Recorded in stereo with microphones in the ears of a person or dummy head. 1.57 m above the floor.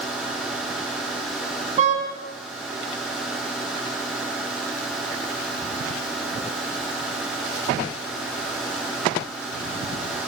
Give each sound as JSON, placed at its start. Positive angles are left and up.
{"t": 0.0, "sound": "a machine running", "side_deg": -5, "distance_m": 4.5}
{"t": 1.8, "sound": "a car horn", "side_deg": -45, "distance_m": 7.0}